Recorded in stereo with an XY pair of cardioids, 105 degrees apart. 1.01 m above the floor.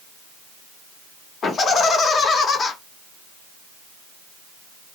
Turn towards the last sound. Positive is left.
turn(degrees=50)